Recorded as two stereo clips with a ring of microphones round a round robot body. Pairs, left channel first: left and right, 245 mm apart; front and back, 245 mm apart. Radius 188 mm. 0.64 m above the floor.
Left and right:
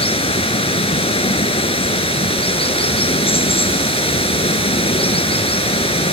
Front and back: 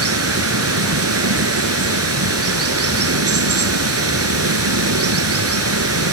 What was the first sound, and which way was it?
Running water, 155° left.